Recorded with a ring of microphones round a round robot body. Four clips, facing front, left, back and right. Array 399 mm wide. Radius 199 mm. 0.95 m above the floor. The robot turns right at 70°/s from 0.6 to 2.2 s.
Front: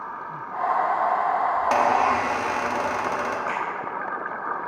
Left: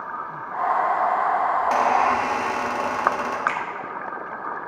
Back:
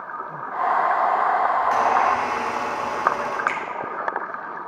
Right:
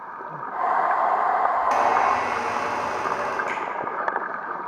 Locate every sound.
1.6 s a squeak: 10° right, 1.6 m; by 3.4 s 35° left, 1.6 m
3.5 s a finger snap: 150° left, 2.0 m